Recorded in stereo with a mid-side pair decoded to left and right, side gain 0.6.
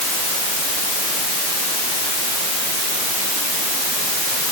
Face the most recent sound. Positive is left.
No sound to turn to.